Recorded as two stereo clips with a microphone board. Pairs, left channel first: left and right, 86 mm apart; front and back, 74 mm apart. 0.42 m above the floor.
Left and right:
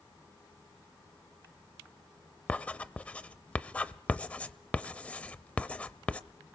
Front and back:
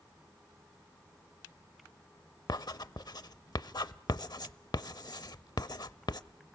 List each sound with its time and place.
2.5 s writing: 15° left, 0.7 m